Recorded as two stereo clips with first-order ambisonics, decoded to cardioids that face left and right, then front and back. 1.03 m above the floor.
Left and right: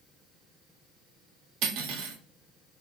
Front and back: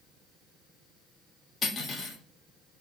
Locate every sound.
1.6 s cutlery clinking: 70° right, 0.8 m